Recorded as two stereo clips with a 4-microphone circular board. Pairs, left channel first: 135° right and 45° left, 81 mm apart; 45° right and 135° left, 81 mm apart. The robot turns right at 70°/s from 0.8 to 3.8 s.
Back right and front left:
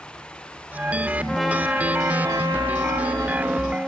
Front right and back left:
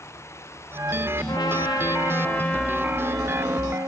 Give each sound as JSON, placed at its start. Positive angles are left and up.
{"t": 1.3, "sound": "a trumpet", "azimuth_deg": -55, "distance_m": 0.8}